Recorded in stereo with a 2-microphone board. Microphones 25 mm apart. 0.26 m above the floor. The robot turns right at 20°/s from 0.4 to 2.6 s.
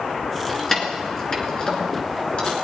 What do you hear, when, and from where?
0.5 s keys jangling: 10° left (ahead or behind), 2.5 m; by 2.5 s 50° left (ahead or behind), 2.5 m